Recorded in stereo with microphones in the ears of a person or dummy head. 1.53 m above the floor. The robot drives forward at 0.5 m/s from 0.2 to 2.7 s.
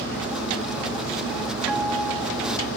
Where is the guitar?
5° right (ahead or behind), 1.4 m.